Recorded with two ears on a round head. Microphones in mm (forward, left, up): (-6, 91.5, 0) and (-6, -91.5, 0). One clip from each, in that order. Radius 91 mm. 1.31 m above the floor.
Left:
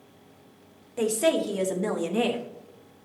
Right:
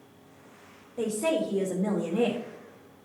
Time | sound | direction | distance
1.0 | a woman speaking | 70° left (ahead or behind) | 1.7 m